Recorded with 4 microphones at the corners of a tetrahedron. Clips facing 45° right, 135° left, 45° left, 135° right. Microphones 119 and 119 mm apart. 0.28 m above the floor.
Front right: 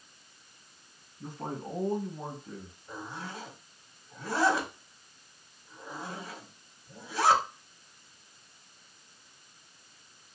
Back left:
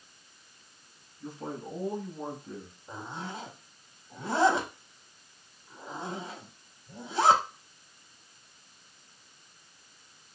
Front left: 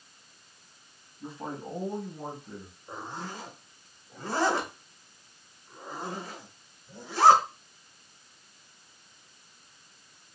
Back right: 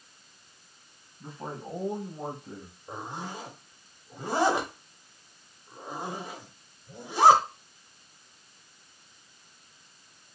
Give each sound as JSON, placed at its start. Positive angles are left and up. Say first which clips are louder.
{"t": 1.2, "sound": "a man speaking", "louder": "even, front left 1 dB", "azimuth_deg": -35, "distance_m": 1.8}
{"t": 2.9, "sound": "a zipper", "louder": "back left 1 dB, back right 1 dB", "azimuth_deg": 170, "distance_m": 0.8}